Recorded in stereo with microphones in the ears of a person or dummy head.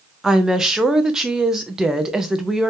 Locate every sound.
0.2 s a woman speaking: 5° right (ahead or behind), 0.5 m